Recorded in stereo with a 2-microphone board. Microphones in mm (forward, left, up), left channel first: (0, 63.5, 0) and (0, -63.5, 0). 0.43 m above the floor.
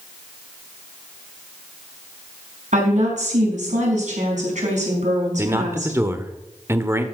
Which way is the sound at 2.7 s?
75° right (ahead or behind).